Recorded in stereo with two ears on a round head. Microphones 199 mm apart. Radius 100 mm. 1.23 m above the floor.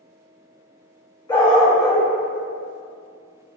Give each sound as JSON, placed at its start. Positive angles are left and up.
{"t": 1.3, "sound": "a dog barking", "side_deg": 20, "distance_m": 0.6}